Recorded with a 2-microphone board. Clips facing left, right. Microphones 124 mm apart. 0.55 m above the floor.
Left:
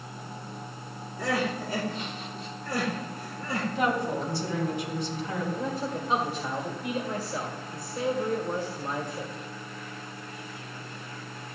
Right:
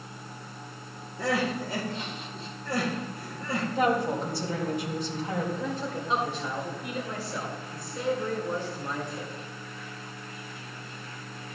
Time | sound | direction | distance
1.2 | crying | 30° right (ahead or behind) | 3 m
3.8 | a woman speaking | 45° right (ahead or behind) | 4 m
5.5 | a man speaking | 5° left (ahead or behind) | 1.7 m